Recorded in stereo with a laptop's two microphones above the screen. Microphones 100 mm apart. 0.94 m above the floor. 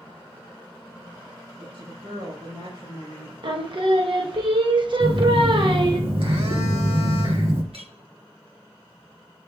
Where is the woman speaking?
75° right (ahead or behind), 4.5 m; by 3.3 s 80° right, 3 m.